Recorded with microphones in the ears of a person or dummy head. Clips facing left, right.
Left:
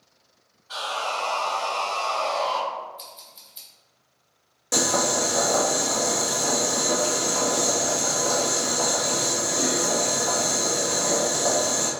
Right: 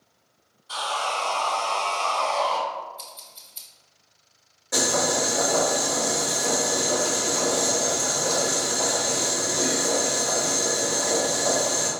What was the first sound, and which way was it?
Sawing, 50° right (ahead or behind).